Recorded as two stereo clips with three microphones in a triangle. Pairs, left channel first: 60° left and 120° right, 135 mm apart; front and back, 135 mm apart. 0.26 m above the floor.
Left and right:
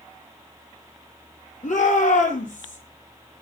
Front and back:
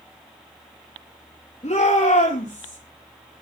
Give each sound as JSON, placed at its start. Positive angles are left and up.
{"t": 1.6, "sound": "a shout", "azimuth_deg": 40, "distance_m": 6.5}